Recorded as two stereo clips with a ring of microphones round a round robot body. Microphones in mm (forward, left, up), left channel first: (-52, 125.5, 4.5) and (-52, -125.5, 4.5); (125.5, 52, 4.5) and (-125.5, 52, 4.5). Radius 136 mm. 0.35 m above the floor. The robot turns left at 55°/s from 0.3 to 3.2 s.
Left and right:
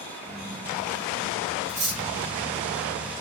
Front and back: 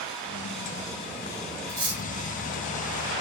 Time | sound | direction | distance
1.7 | cutlery clinking | 100° right | 1.3 m